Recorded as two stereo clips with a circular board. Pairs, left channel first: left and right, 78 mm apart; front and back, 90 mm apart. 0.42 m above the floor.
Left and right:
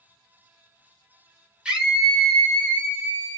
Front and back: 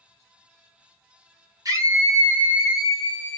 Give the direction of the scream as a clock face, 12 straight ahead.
5 o'clock.